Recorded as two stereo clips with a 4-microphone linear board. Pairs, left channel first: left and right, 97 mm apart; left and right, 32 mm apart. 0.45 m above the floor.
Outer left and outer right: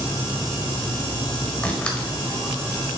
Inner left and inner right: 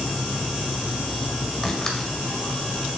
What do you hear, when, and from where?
1.6 s a door slam: 10° left (ahead or behind), 1.4 m